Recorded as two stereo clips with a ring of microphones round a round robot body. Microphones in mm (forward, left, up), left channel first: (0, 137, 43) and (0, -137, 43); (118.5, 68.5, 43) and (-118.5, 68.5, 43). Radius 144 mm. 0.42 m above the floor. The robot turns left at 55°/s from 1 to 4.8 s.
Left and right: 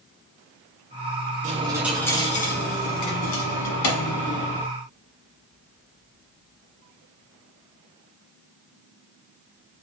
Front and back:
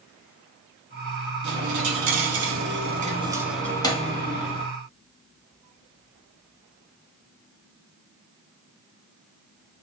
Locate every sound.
1.4 s a dropped coin: 155° right, 1.0 m; by 4.7 s 30° left, 1.0 m